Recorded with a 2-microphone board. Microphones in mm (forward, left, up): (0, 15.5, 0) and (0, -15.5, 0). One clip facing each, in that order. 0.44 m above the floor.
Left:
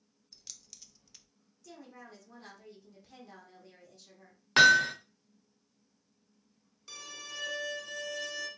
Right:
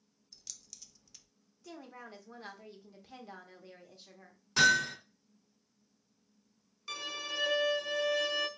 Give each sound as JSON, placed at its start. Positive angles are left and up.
{"t": 0.3, "sound": "keys jangling", "side_deg": 10, "distance_m": 0.5}
{"t": 1.6, "sound": "a woman speaking", "side_deg": -25, "distance_m": 0.9}
{"t": 4.6, "sound": "hammering", "side_deg": 45, "distance_m": 0.8}
{"t": 6.9, "sound": "a violin", "side_deg": -40, "distance_m": 0.6}